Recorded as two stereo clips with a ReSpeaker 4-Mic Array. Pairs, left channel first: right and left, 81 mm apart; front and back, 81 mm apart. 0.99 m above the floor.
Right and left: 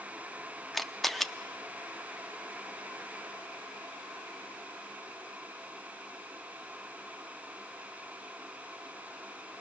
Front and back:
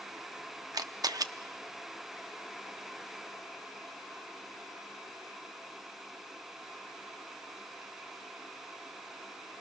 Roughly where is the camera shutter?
Behind.